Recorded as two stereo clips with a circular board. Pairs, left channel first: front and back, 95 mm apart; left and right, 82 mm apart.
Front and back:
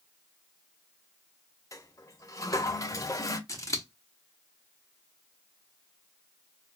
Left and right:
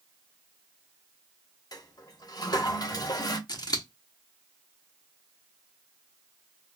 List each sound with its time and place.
1.7 s a toilet flushing: 50° left, 0.7 m
3.5 s scissors: 55° left, 0.8 m